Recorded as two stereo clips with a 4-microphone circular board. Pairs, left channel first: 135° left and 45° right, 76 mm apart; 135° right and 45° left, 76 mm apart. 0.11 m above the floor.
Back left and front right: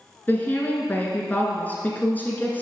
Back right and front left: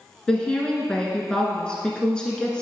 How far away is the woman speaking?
About 1.2 m.